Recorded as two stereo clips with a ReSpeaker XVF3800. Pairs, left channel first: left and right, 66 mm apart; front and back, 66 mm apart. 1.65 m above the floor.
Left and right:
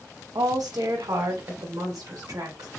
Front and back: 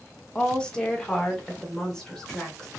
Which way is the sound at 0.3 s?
75° right.